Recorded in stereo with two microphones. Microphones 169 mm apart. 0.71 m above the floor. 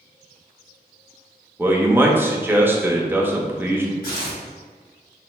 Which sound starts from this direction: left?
Tearing paper, at 4.0 s.